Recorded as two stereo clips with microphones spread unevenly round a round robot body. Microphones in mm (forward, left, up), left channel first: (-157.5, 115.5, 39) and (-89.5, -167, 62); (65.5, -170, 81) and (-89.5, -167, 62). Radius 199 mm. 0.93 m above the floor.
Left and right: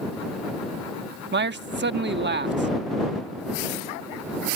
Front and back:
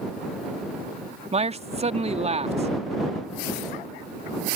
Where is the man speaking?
130° right.